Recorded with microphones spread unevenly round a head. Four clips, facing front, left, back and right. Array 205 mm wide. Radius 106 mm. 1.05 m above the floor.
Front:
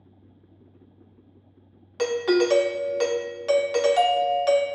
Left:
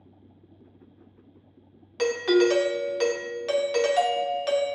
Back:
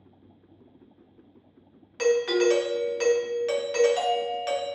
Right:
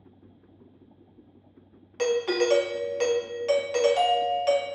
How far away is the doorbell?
About 0.6 m.